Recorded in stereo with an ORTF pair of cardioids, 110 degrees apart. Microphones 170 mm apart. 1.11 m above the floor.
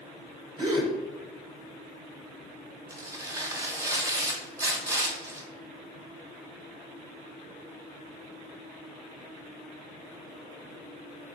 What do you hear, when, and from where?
0.6 s a gasp: 30° right, 0.8 m
2.9 s tearing paper: 20° right, 0.7 m